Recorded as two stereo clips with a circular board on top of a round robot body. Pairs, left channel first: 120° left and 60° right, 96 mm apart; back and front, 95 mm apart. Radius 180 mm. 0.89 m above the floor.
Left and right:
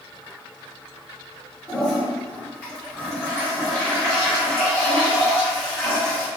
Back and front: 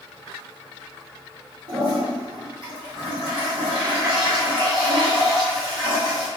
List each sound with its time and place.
1.7 s a toilet flushing: 40° left, 0.8 m